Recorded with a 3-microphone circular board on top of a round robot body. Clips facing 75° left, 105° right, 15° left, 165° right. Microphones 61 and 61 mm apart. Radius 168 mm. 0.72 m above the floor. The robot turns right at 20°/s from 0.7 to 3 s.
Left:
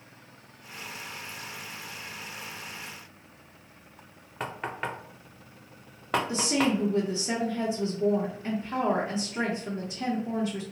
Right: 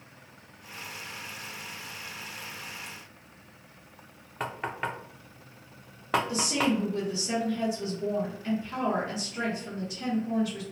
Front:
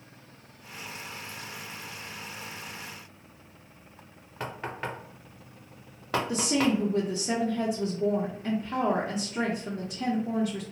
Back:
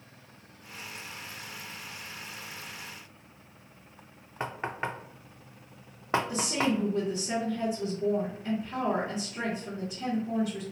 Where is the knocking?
170° left, 0.7 m.